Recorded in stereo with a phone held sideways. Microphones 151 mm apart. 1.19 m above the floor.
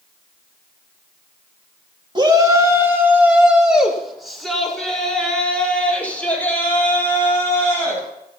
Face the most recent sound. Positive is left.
turn(degrees=15)  # may be behind; listen again after turning